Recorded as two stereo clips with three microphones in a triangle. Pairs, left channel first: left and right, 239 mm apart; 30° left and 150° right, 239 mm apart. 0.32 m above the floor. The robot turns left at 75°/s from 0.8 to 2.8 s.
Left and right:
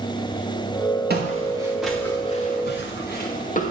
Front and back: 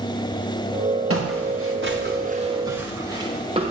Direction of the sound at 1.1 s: 135° right.